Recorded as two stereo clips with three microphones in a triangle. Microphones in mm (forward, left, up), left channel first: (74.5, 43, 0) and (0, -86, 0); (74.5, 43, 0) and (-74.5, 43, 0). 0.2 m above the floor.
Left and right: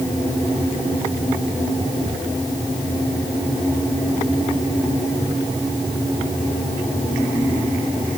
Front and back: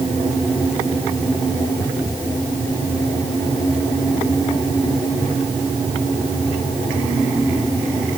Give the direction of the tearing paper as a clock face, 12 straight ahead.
No tearing paper in this recording.